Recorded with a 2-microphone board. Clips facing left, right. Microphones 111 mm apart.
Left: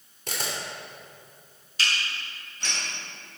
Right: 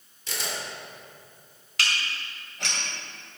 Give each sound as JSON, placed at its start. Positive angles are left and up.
{"t": 0.3, "sound": "a camera shutter", "side_deg": 55, "distance_m": 3.0}
{"t": 1.8, "sound": "dishes clattering", "side_deg": -85, "distance_m": 2.5}